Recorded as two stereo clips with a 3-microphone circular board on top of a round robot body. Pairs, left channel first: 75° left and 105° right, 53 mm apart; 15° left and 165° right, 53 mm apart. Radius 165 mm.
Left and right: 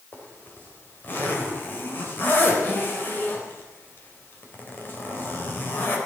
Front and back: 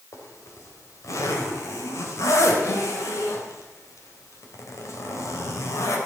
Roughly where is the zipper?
Ahead left.